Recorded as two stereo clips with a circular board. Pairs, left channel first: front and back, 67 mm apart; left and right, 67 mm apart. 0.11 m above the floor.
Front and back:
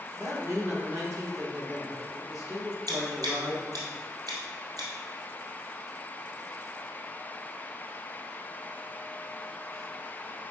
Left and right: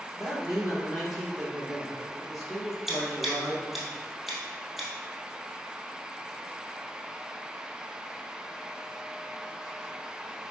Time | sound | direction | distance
0.1 | a man speaking | 175° right | 2 m
2.9 | scissors | straight behind | 2.5 m